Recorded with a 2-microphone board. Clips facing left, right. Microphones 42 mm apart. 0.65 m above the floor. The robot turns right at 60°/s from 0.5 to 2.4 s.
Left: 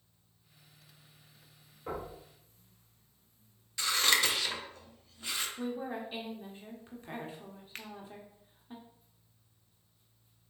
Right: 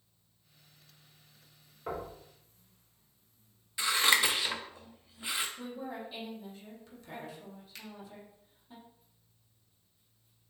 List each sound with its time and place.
1.9 s knocking: 25° right (ahead or behind), 2.5 m; by 2.1 s 10° right (ahead or behind), 2.5 m
3.8 s scissors: 15° right (ahead or behind), 0.6 m
5.6 s a woman speaking: 30° left (ahead or behind), 1.2 m
7.8 s a finger snap: 45° left (ahead or behind), 0.5 m